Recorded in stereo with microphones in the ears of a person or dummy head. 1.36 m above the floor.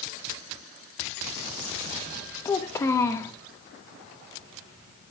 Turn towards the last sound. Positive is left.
turn(degrees=15)  # may be behind; listen again after turning